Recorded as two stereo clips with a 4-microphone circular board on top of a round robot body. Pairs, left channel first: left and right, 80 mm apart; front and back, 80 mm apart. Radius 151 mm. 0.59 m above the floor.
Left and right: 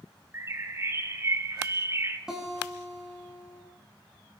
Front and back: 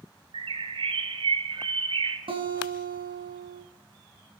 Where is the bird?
155° right, 1.7 m.